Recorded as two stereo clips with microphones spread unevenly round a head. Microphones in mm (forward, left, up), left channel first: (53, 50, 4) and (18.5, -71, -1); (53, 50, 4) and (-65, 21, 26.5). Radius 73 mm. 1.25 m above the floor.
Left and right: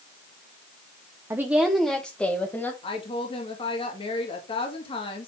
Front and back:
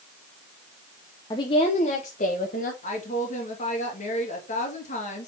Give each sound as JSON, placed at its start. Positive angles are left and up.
{"t": 1.3, "sound": "a woman speaking", "azimuth_deg": -40, "distance_m": 0.8}
{"t": 2.8, "sound": "a woman speaking", "azimuth_deg": 25, "distance_m": 2.0}